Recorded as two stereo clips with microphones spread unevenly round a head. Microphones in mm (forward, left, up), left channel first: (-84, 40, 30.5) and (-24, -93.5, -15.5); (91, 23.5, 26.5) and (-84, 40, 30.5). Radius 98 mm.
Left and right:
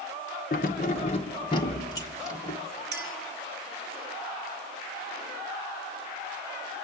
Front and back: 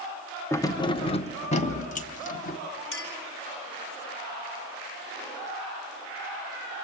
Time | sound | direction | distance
0.5 | keys jangling | 70° left | 0.5 m
2.9 | a clink | 35° right | 3 m